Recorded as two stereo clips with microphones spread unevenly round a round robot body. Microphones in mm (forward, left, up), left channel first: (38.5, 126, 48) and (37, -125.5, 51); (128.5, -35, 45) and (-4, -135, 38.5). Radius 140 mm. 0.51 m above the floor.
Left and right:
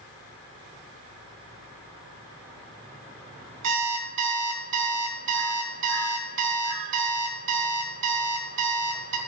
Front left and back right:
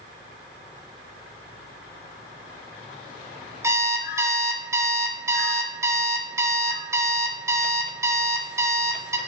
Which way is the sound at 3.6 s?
70° right.